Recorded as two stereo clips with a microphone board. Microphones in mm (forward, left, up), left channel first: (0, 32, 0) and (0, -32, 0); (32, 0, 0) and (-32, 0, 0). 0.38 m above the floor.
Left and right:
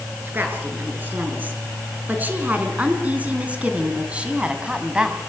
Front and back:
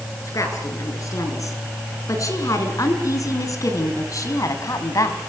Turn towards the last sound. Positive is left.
turn(degrees=-15)